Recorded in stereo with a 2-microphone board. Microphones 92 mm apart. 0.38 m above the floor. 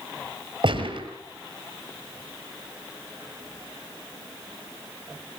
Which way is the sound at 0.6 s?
60° right (ahead or behind).